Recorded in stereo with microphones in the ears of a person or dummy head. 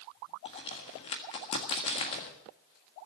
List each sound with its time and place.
0.5 s a crack: 30° left (ahead or behind), 1.6 m